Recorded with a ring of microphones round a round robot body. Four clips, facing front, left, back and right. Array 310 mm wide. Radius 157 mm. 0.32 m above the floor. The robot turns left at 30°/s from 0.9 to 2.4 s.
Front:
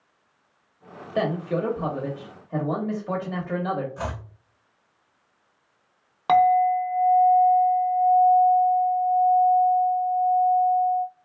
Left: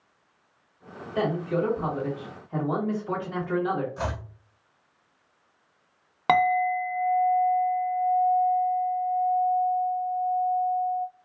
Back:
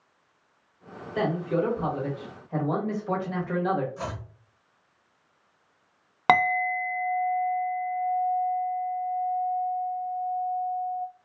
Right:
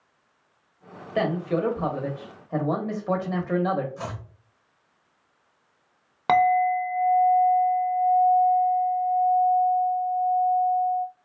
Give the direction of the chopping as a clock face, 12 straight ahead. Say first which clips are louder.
Left 3 dB, front 3 dB; 11 o'clock.